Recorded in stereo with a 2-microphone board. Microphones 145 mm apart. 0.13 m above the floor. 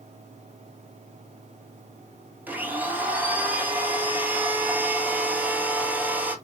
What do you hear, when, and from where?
2.5 s a blender: 10° right (ahead or behind), 1.1 m